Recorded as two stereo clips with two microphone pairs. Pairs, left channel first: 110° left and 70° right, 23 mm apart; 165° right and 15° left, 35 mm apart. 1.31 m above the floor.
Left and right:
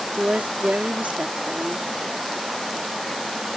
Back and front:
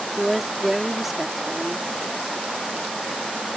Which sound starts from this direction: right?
A woman speaking, at 0.2 s.